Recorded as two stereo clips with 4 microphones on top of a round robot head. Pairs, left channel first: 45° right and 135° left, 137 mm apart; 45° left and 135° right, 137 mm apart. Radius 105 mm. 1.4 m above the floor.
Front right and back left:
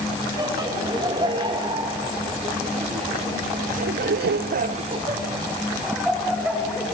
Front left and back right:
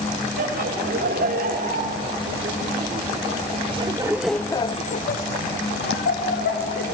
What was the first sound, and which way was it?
Laughter, 160° right.